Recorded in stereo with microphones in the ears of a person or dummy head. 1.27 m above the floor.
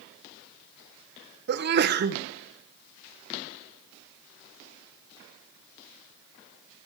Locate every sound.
1.5 s a sneeze: 45° right (ahead or behind), 1.1 m